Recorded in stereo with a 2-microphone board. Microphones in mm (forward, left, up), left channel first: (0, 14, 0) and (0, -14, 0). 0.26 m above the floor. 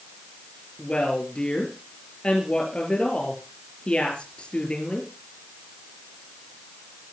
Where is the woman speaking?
40° left (ahead or behind), 4 m.